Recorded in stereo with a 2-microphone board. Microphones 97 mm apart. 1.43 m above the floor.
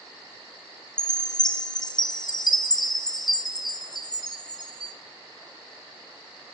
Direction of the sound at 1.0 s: 45° left (ahead or behind).